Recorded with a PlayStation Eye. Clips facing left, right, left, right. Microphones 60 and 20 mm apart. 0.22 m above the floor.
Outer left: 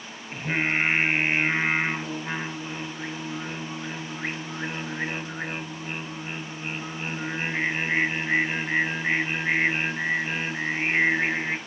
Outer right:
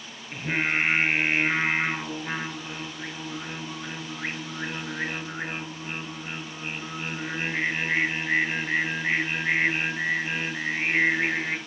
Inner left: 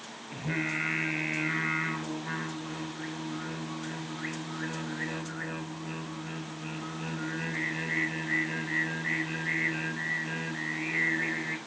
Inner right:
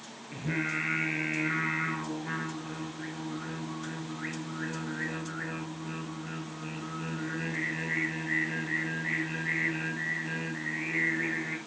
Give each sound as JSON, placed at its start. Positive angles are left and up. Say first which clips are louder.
{"t": 0.3, "sound": "singing", "louder": "even, even", "side_deg": 0, "distance_m": 3.5}